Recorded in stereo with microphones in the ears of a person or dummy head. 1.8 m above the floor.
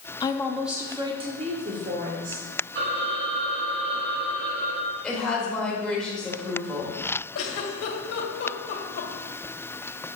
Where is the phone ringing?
55° right (ahead or behind), 3 m.